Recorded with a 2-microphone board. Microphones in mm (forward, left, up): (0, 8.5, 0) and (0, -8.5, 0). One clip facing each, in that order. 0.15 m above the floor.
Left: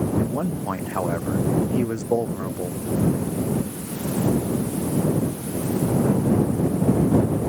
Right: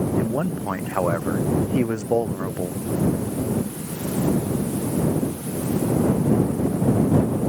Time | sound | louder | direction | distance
0.2 | a man speaking | right 1 dB | 75° right (ahead or behind) | ?